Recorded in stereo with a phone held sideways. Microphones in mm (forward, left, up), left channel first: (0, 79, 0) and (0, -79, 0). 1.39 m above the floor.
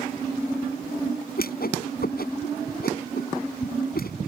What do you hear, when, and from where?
1.4 s a whoosh: 70° left (ahead or behind)